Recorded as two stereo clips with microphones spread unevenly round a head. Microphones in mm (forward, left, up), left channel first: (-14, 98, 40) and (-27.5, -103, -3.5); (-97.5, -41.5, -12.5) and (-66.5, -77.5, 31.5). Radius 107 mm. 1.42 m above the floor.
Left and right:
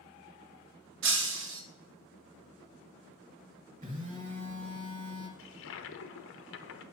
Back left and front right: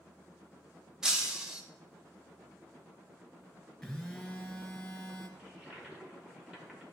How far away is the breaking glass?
About 0.9 m.